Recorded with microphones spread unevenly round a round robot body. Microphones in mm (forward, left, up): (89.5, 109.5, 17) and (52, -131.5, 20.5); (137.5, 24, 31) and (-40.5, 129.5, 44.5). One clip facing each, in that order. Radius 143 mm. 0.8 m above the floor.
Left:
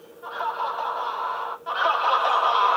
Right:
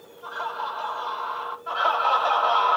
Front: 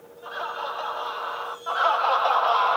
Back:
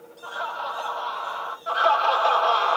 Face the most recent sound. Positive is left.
turn(degrees=100)